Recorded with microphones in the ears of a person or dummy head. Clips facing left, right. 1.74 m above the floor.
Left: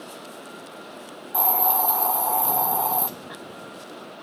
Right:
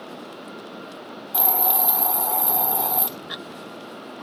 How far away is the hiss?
About 1.1 m.